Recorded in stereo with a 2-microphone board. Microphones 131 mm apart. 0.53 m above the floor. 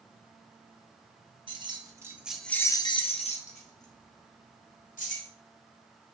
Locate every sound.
1.5 s keys jangling: 40° right (ahead or behind), 0.8 m; by 5.3 s 75° left (ahead or behind), 1.7 m